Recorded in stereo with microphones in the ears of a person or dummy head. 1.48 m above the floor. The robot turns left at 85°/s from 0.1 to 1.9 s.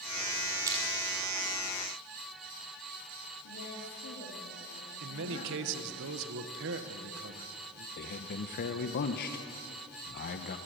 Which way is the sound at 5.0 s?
65° right (ahead or behind).